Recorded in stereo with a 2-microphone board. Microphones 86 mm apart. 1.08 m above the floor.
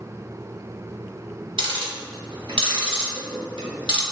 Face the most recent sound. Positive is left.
turn(degrees=-70)  # may be behind; listen again after turning